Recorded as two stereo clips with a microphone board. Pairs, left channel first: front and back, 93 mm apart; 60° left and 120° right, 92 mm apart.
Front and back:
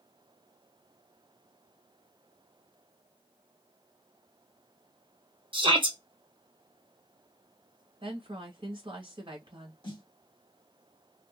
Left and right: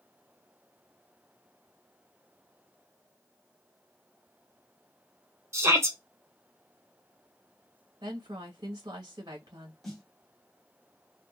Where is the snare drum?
30° right, 1.2 m.